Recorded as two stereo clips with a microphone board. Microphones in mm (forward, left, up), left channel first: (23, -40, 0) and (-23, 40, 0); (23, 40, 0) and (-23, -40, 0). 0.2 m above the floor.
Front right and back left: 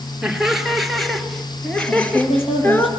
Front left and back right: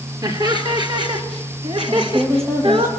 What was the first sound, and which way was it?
Laughter, 155° right.